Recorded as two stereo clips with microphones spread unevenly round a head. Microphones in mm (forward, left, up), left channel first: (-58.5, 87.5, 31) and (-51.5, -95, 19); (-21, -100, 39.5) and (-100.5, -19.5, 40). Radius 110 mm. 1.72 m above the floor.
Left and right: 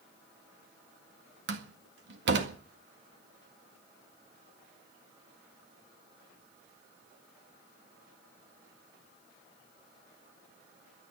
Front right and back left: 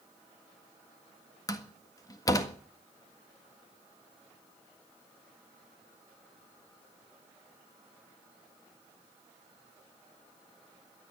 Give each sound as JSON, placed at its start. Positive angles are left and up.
{"t": 1.5, "sound": "a door slam", "azimuth_deg": -100, "distance_m": 1.7}